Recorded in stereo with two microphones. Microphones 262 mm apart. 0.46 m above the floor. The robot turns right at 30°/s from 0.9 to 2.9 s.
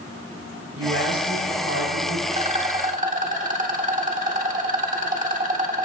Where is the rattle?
25° right (ahead or behind), 1.4 m; by 5.9 s 30° right (ahead or behind), 1.4 m.